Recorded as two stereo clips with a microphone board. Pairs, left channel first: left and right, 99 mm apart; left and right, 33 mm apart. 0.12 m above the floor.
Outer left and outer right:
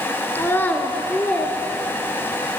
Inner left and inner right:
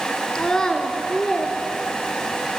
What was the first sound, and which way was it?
A child speaking, 25° left (ahead or behind).